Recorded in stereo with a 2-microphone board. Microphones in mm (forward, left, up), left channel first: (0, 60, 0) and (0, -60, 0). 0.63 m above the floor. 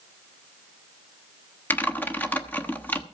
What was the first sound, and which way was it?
Typing on a keyboard, 15° left (ahead or behind).